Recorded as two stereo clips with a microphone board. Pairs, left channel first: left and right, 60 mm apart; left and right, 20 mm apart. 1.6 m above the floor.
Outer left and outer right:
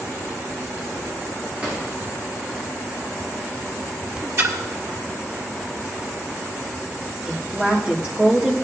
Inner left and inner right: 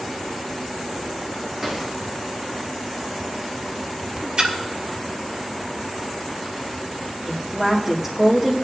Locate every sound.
1.6 s a drawer: 25° right (ahead or behind), 7 m
4.4 s a splash: 50° right (ahead or behind), 1.5 m
7.3 s a woman speaking: 15° right (ahead or behind), 2.0 m